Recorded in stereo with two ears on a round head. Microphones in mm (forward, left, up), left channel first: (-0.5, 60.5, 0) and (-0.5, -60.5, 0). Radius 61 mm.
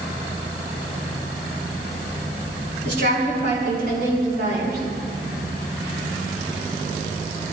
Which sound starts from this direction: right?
A woman speaking, at 2.9 s.